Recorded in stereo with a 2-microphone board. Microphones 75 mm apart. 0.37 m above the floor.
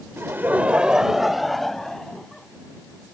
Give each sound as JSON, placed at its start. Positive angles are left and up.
{"t": 0.2, "sound": "laughter", "side_deg": -35}